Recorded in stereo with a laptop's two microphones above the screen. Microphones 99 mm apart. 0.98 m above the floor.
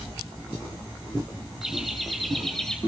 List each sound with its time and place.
1.6 s laughter: centre (ahead or behind), 5.5 m; by 2.8 s 10° left (ahead or behind), 4.5 m